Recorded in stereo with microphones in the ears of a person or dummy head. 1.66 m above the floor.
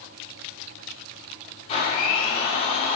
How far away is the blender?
About 1.6 m.